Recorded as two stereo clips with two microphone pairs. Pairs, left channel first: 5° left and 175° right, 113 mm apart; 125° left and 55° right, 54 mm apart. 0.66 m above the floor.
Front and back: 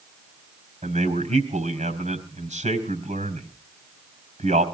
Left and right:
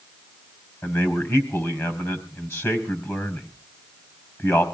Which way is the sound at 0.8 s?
170° left.